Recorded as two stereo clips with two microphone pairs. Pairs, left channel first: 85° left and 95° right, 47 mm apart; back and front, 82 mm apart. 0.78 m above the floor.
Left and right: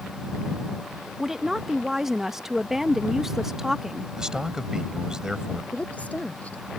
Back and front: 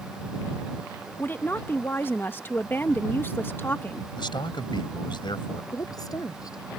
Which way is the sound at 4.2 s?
170° right.